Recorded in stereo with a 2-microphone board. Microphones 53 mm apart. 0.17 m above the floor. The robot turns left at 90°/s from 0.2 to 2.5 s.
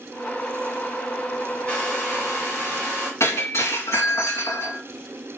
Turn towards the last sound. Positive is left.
turn(degrees=65)  # may be behind; listen again after turning